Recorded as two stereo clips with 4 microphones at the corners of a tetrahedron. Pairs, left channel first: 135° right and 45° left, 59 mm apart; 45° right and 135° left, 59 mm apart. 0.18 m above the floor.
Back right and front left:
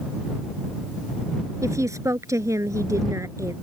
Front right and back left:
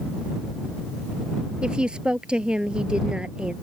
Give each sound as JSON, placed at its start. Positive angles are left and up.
{"t": 1.6, "sound": "a woman speaking", "azimuth_deg": 65}